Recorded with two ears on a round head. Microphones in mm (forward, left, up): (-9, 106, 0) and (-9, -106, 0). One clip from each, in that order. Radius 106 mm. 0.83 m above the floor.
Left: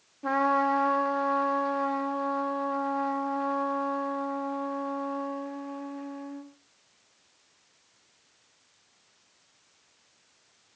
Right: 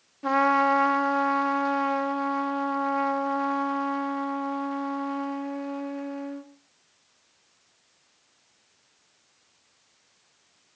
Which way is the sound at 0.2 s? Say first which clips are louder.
Right 3 dB; 35° right (ahead or behind).